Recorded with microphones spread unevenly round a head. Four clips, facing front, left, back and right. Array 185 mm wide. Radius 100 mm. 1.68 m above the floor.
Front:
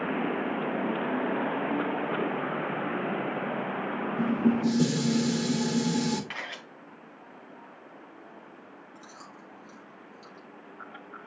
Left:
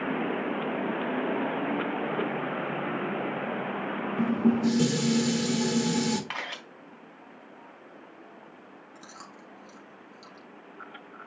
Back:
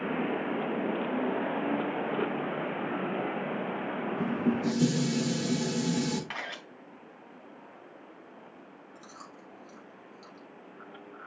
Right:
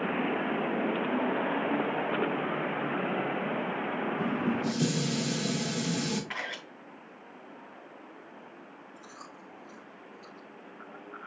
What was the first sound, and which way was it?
Dishes clattering, 55° left.